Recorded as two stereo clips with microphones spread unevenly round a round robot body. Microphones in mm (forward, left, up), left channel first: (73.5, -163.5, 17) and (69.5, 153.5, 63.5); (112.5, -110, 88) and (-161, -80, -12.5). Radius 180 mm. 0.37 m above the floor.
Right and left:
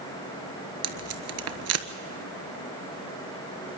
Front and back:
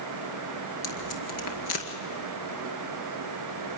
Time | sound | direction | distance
0.8 | tape being pulled | 45° left | 1.2 m